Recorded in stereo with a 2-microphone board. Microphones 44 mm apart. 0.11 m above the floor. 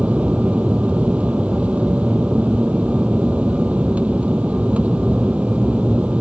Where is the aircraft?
30° right (ahead or behind).